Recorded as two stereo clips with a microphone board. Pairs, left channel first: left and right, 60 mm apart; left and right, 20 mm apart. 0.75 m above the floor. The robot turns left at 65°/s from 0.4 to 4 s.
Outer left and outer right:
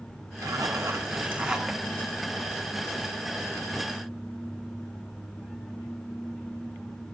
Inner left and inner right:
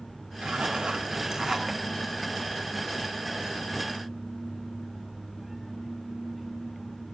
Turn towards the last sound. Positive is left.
turn(degrees=30)